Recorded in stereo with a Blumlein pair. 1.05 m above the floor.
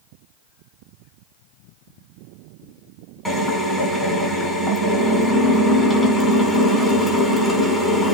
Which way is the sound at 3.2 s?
5° left.